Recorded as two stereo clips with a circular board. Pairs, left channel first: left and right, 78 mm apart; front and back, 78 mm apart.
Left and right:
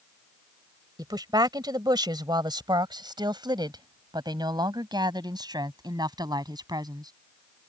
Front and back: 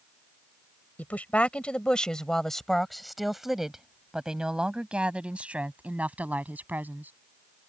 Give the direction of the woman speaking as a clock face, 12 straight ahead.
2 o'clock.